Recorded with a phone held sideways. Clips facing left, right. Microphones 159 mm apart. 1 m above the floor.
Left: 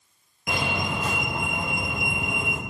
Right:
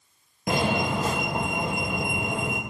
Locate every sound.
0.5 s a fire alarm: 40° right (ahead or behind), 2.5 m